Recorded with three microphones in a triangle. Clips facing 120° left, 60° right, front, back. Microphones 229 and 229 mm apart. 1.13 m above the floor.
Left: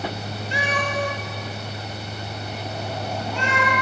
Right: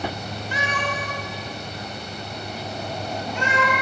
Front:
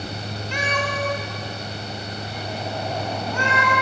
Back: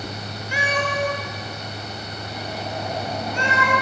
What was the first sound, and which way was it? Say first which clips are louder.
A cat meowing: left 3 dB, back 2 dB; 105° left.